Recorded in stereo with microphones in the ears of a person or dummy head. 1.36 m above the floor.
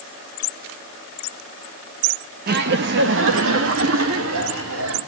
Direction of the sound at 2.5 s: 50° right (ahead or behind).